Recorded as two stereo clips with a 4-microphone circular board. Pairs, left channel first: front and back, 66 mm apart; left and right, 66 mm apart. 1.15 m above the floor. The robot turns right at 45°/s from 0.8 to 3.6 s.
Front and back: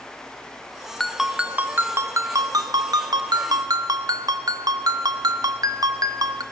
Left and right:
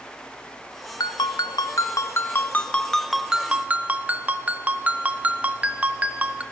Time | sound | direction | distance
1.0 | a ringtone | 85° left | 0.6 m